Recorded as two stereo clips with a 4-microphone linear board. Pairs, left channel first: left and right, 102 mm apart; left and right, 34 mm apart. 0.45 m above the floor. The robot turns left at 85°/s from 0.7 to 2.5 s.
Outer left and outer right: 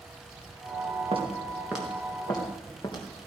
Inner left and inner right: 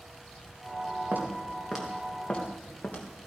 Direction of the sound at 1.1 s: 60° right (ahead or behind).